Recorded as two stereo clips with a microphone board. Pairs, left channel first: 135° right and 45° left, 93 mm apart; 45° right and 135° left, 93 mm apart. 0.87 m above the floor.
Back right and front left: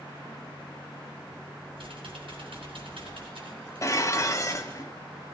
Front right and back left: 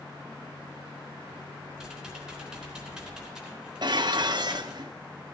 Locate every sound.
1.8 s typing on a keyboard: 50° left, 3.5 m
3.8 s dishes clattering: 170° left, 0.9 m